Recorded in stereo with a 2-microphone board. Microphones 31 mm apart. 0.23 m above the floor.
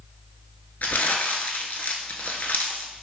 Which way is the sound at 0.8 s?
85° left.